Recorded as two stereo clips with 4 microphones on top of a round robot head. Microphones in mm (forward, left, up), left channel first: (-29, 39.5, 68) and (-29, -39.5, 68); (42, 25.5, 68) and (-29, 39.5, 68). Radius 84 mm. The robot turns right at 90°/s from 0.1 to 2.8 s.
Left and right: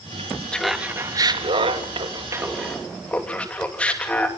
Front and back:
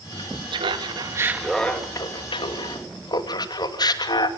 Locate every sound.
0.5 s laughter: 165° left, 2.5 m; by 4.3 s 15° left, 2.5 m